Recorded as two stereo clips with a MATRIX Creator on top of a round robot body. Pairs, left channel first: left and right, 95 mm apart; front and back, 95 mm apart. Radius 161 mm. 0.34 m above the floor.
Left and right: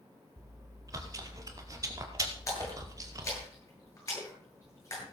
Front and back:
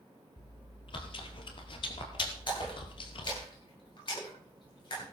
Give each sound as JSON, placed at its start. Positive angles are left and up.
{"t": 0.4, "sound": "chewing", "azimuth_deg": -35, "distance_m": 2.0}
{"t": 2.5, "sound": "a splash", "azimuth_deg": 35, "distance_m": 10.0}